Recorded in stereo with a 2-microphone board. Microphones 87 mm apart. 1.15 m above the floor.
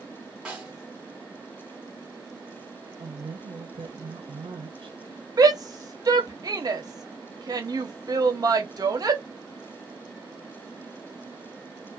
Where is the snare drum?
10° right (ahead or behind), 1.2 m.